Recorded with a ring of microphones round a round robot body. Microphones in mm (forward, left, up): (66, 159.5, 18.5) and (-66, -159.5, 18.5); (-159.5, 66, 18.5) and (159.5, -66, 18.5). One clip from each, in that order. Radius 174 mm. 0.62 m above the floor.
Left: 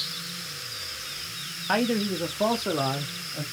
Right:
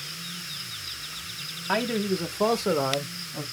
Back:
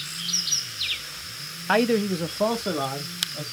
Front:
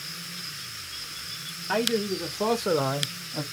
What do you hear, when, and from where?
1.7 s a man speaking: 155° left, 0.6 m; by 3.4 s 50° right, 0.7 m